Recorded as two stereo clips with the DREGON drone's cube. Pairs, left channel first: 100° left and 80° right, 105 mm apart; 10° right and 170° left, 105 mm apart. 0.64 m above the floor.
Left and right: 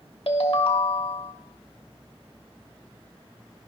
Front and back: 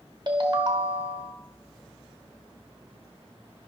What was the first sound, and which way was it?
A ringtone, 125° left.